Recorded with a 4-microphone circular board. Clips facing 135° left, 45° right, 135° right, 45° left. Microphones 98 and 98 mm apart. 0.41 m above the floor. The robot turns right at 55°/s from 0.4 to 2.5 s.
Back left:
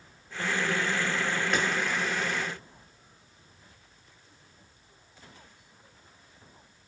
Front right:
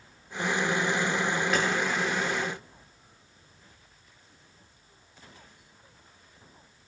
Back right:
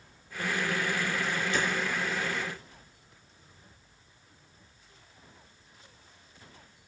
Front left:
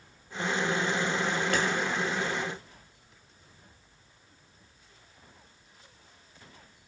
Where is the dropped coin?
I don't hear a dropped coin.